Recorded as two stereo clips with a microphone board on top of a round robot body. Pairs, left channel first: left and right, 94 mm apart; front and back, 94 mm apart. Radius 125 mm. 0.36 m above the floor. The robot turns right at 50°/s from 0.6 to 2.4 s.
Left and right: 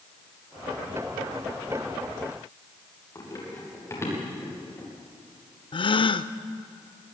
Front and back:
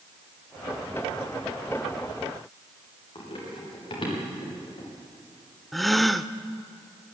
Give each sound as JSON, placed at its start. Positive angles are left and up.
{"t": 3.1, "sound": "running footsteps", "azimuth_deg": 35, "distance_m": 8.0}
{"t": 5.7, "sound": "a gasp", "azimuth_deg": 90, "distance_m": 0.7}